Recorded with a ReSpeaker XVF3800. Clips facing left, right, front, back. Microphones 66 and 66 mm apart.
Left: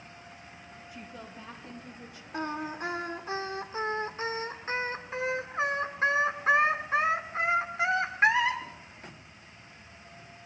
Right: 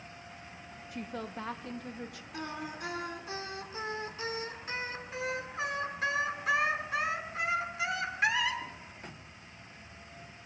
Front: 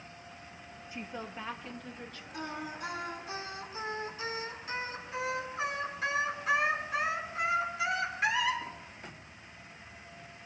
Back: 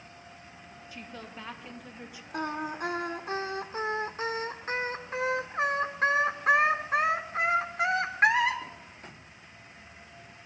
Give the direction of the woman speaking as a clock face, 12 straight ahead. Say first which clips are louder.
Right 7 dB, front 3 dB; 2 o'clock.